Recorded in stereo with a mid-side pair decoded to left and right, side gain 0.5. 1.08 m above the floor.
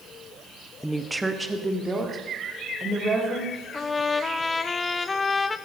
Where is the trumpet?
25° left, 0.5 m.